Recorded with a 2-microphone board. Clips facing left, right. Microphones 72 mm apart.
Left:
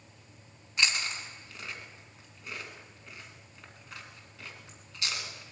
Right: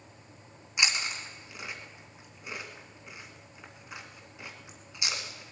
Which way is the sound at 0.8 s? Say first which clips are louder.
Even; 15° right (ahead or behind).